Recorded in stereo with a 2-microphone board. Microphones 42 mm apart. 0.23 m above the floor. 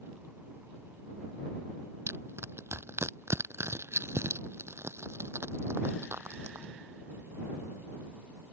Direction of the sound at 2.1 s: 90° right.